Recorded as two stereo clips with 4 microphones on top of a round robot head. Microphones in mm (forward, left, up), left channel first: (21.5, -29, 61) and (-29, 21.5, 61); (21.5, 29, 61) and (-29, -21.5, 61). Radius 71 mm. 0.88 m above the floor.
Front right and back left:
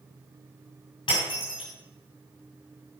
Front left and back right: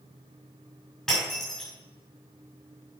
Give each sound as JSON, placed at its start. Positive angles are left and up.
{"t": 1.1, "sound": "breaking glass", "azimuth_deg": -40, "distance_m": 6.5}